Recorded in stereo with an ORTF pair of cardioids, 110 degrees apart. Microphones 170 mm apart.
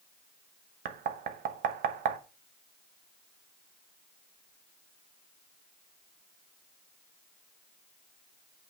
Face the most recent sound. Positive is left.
turn(degrees=-60)